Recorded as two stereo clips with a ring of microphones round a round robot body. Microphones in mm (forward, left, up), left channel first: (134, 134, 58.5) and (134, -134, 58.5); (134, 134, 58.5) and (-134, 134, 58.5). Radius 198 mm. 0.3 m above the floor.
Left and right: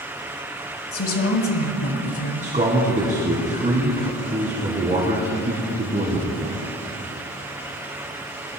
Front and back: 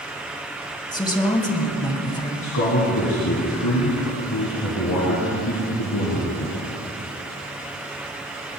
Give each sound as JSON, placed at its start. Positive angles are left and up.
{"t": 0.9, "sound": "a woman speaking", "azimuth_deg": 70, "distance_m": 3.5}
{"t": 2.4, "sound": "a man speaking", "azimuth_deg": -30, "distance_m": 3.0}